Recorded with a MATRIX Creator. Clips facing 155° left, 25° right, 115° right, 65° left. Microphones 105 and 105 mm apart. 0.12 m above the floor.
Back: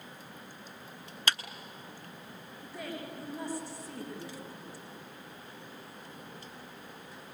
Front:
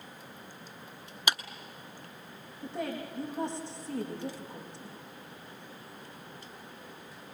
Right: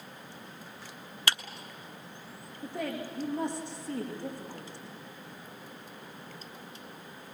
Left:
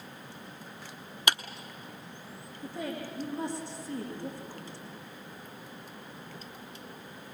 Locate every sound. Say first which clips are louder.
1.3 s a clap: front 1 dB, left 2 dB; 30° left, 0.9 m
2.6 s a woman speaking: front 5 dB, right 1 dB; 90° right, 6.5 m